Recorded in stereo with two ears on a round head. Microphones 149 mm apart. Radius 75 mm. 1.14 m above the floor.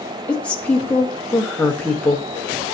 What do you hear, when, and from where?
0.3 s a woman speaking: 10° left (ahead or behind), 1.3 m